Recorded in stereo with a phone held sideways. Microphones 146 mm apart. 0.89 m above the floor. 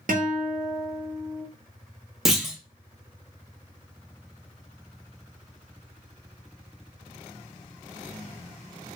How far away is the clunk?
About 0.5 m.